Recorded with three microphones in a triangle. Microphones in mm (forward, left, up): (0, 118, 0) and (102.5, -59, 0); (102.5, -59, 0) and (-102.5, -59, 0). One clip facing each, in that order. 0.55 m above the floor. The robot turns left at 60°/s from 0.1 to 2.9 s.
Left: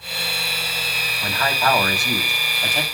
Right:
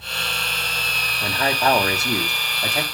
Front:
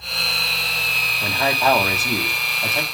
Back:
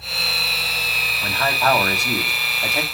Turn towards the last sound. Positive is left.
turn(degrees=-135)